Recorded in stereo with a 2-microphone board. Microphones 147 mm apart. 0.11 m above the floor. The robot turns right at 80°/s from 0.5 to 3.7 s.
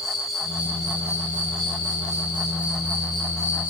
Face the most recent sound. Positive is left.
turn(degrees=75)